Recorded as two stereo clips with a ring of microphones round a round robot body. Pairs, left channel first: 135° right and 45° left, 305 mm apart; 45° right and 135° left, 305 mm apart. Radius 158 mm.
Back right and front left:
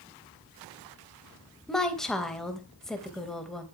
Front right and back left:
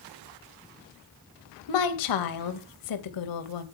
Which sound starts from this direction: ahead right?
A woman speaking, at 1.7 s.